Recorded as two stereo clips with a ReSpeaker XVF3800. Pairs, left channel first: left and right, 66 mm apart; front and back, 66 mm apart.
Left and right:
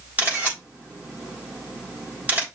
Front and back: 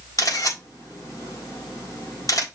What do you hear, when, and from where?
0.2 s a camera shutter: 30° right, 4 m